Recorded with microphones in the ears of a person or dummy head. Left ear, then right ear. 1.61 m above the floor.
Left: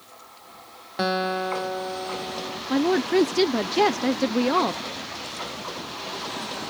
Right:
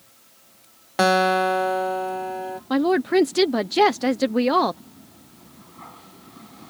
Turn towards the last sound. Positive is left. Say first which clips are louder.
# right 2 dB
turn(degrees=-15)  # may be behind; listen again after turning